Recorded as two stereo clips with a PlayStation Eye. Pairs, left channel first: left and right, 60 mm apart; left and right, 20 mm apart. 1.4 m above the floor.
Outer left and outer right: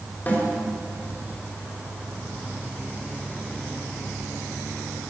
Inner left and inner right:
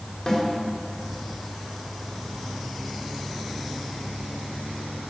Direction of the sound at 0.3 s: 30° left (ahead or behind).